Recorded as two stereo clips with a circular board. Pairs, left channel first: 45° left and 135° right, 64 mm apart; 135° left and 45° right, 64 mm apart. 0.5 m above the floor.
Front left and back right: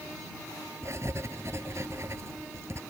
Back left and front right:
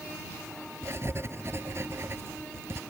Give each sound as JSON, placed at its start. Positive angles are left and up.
{"t": 0.8, "sound": "writing", "azimuth_deg": -95}